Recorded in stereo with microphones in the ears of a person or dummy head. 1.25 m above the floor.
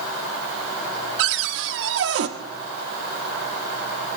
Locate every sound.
1.2 s a cupboard door: 65° right (ahead or behind), 1.2 m